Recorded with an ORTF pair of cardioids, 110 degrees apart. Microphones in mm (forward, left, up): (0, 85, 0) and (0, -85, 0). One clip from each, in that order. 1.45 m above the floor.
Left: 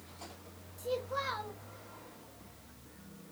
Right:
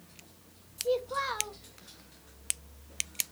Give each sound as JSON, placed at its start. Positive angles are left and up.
{"t": 0.8, "sound": "a child speaking", "azimuth_deg": -20, "distance_m": 1.2}